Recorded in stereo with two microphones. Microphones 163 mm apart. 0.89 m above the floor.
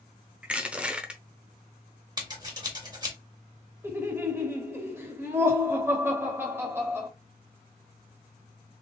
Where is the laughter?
15° right (ahead or behind), 1.7 m.